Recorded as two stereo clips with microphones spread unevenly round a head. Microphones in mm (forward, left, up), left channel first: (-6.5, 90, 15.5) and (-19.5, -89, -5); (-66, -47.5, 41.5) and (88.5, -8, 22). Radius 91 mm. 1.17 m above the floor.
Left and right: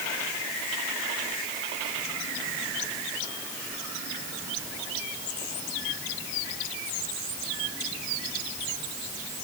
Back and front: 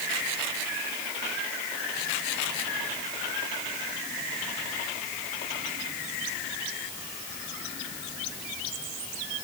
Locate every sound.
Only background noise.